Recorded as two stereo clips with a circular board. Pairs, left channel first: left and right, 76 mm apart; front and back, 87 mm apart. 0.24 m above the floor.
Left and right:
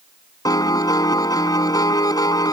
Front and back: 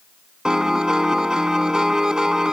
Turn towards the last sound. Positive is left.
turn(degrees=100)